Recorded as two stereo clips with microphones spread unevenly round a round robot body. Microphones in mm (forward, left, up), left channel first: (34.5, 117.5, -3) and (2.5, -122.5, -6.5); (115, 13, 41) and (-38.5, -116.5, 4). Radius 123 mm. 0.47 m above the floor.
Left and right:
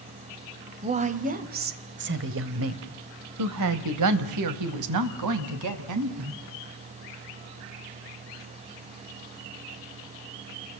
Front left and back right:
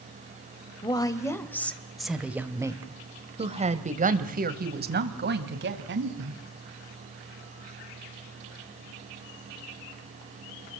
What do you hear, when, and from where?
0.8 s a woman speaking: 35° right, 2.5 m; by 6.4 s 120° right, 3.5 m